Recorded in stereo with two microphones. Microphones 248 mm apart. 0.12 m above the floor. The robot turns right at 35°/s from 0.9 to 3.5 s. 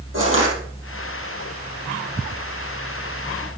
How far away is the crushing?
About 4 m.